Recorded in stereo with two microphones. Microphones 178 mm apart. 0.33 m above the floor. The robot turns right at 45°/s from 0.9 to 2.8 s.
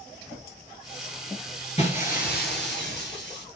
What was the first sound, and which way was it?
Breaking glass, 35° left.